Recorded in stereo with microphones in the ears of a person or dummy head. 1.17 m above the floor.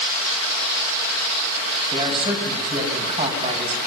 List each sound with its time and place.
1.9 s a man speaking: 35° right (ahead or behind), 8 m